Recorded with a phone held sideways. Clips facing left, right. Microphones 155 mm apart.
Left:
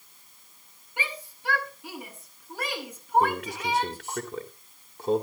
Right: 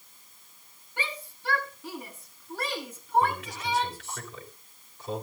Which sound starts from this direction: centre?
A shout, at 1.0 s.